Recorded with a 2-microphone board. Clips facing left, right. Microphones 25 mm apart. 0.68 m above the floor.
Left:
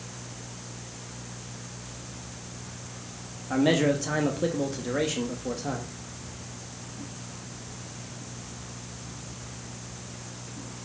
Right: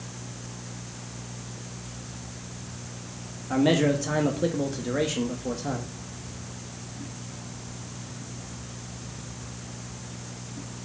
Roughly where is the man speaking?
Centre.